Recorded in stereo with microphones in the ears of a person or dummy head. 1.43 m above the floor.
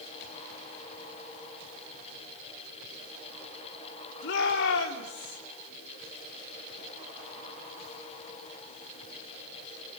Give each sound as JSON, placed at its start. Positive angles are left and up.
{"t": 4.2, "sound": "a shout", "side_deg": 65, "distance_m": 3.0}